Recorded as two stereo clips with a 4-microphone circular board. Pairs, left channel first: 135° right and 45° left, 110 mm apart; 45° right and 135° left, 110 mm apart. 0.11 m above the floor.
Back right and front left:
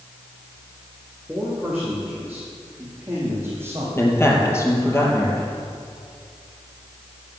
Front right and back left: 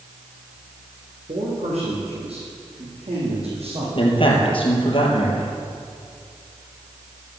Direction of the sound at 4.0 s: 70° right.